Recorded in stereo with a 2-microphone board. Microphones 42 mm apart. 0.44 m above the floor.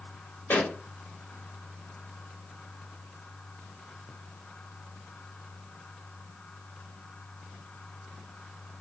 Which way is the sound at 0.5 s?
55° left (ahead or behind).